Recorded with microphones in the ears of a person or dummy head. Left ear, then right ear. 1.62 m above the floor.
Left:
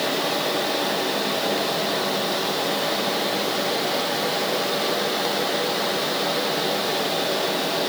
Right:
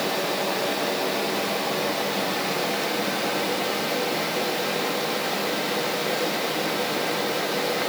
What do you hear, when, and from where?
Only background noise.